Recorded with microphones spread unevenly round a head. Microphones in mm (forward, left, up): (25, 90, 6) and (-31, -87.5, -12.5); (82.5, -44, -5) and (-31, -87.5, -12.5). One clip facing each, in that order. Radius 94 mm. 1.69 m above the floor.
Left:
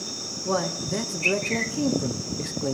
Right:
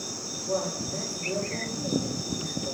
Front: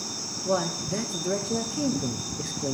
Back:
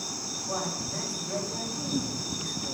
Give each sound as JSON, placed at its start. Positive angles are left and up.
{"t": 0.5, "sound": "a man speaking", "azimuth_deg": 65, "distance_m": 1.2}